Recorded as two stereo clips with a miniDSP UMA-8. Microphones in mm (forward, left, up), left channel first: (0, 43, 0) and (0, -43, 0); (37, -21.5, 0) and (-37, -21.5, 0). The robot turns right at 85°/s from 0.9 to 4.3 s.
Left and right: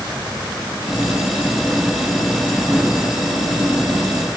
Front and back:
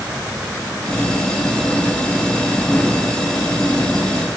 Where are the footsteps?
I don't hear footsteps.